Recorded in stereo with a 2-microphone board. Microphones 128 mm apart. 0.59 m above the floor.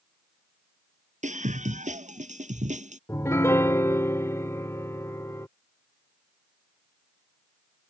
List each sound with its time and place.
1.2 s a scream: 70° right (ahead or behind)
3.1 s a piano: 20° left (ahead or behind)